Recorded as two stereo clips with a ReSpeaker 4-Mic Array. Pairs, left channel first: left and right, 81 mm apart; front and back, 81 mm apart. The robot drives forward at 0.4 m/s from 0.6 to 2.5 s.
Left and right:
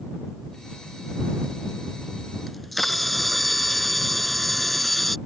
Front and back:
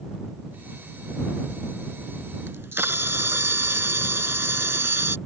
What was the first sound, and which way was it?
A camera shutter, 175° left.